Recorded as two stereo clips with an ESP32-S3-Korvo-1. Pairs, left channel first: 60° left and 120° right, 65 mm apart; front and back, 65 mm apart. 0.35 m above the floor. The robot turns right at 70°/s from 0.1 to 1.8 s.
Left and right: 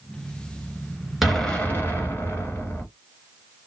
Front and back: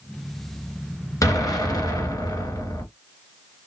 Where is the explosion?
35° right, 1.2 m; by 2.9 s 10° left, 1.2 m.